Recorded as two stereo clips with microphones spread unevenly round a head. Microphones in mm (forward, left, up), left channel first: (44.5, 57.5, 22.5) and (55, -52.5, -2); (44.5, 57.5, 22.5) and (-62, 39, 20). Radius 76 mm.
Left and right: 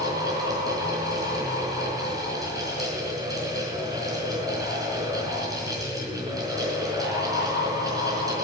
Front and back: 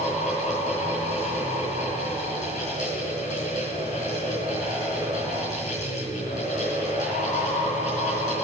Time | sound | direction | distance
0.0 | a fan | 25° right | 4.5 m